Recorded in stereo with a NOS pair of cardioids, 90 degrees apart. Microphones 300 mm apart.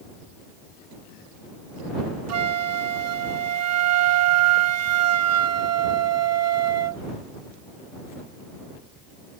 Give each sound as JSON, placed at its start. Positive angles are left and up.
{"t": 2.3, "sound": "a flute", "azimuth_deg": -60}